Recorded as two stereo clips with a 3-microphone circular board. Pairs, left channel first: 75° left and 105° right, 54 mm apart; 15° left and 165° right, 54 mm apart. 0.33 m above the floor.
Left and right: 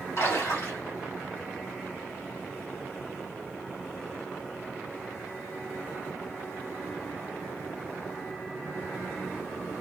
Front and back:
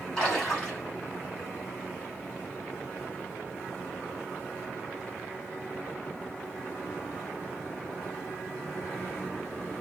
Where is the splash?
85° left, 3 m.